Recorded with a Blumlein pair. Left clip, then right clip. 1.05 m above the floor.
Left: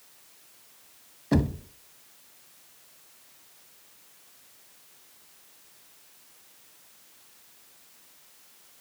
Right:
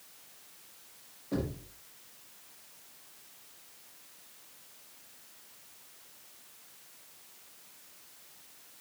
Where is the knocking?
45° left, 0.8 m.